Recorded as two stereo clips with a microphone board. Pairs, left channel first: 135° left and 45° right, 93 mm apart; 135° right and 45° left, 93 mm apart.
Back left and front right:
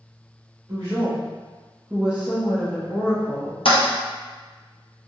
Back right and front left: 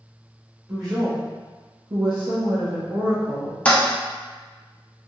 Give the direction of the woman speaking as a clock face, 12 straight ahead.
12 o'clock.